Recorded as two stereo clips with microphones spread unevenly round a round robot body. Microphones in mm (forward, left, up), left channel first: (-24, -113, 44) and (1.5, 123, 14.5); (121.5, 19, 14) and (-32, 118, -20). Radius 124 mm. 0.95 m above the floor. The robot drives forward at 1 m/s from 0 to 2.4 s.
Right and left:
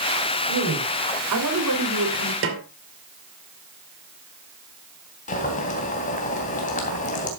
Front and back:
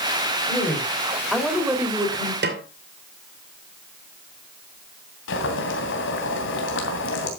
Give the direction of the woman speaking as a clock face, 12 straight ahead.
10 o'clock.